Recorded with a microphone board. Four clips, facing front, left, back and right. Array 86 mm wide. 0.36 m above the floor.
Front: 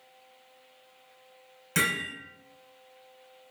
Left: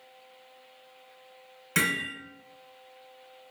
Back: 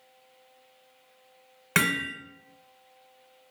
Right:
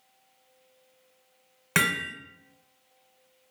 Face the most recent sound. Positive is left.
turn(degrees=-135)